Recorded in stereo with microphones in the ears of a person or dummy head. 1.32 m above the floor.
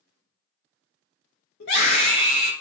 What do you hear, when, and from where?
1.6 s a scream: 65° left (ahead or behind), 1.4 m